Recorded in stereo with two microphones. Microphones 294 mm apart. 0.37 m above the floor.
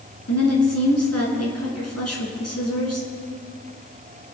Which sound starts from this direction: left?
A woman speaking, at 0.3 s.